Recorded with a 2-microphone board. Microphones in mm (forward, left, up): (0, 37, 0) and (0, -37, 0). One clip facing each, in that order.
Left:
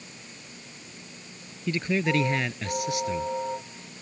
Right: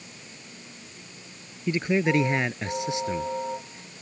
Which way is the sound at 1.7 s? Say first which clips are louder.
Right 3 dB; 20° right (ahead or behind).